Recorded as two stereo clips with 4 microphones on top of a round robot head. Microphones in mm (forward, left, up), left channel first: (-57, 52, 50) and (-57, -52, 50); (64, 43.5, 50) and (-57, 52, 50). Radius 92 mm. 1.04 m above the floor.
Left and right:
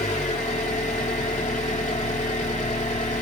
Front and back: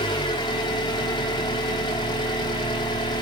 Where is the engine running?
45° left, 1.0 m.